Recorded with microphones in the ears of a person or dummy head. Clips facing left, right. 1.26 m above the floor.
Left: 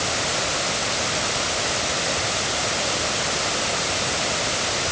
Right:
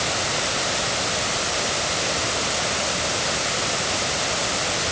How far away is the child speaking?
No child speaking in this recording.